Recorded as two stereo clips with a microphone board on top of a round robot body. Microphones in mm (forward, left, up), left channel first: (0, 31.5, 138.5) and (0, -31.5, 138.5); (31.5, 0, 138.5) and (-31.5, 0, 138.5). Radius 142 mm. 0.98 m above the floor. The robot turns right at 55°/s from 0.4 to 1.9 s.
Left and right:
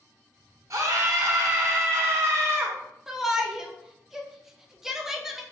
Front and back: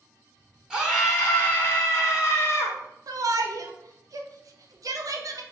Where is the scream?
105° right, 0.9 m; by 2.8 s 35° right, 0.9 m.